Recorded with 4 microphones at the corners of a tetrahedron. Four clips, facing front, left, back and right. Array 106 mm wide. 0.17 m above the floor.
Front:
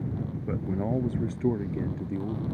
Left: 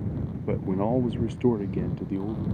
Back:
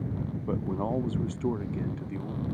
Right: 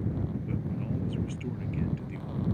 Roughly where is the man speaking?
Left.